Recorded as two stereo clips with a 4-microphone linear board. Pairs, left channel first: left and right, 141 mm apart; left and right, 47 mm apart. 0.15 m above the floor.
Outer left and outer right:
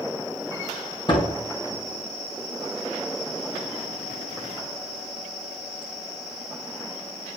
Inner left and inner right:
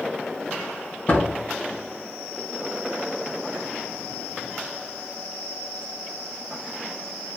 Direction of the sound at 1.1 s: 35° left (ahead or behind).